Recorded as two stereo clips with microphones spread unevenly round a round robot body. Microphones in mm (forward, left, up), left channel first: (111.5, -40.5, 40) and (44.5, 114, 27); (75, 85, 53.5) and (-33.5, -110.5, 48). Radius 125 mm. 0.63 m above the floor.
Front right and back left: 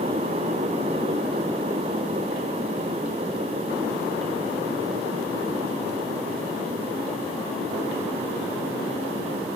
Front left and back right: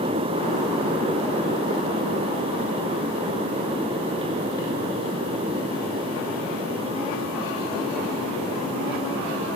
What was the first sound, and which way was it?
Only background noise.